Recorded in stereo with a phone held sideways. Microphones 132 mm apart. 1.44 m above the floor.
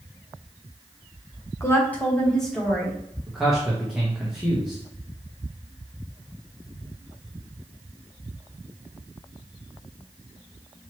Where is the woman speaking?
20° left (ahead or behind), 1.0 m; by 3.0 s centre (ahead or behind), 2 m.